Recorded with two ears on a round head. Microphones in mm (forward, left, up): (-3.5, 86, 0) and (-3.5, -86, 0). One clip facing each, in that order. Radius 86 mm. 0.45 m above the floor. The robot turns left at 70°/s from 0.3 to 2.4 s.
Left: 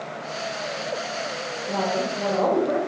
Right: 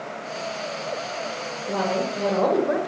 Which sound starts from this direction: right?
A woman speaking, at 1.7 s.